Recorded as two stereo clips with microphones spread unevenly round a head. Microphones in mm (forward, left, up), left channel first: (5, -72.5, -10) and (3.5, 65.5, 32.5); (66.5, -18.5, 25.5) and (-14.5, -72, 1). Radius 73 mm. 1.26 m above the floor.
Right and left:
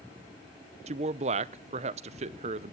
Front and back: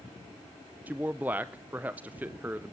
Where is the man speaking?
145° left, 0.6 m.